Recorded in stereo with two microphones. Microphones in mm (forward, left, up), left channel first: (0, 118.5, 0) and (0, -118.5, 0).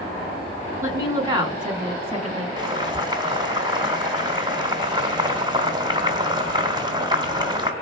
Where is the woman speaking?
10° right (ahead or behind), 2.5 m; by 2.5 s 25° right (ahead or behind), 1.8 m.